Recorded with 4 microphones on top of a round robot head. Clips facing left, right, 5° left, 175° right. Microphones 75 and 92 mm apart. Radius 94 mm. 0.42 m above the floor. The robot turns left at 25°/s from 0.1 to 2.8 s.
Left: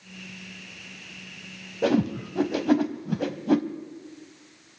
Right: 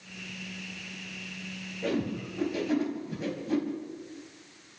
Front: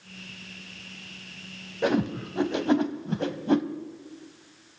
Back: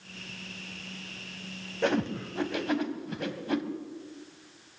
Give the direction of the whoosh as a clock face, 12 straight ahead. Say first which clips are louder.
Left 7 dB, front 3 dB; 9 o'clock.